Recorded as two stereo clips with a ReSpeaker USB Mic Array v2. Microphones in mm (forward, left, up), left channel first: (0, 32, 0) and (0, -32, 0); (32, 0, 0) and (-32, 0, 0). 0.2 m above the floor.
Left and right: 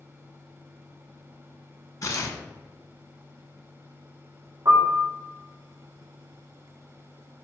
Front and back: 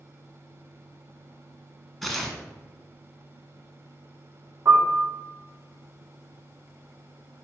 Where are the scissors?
I don't hear scissors.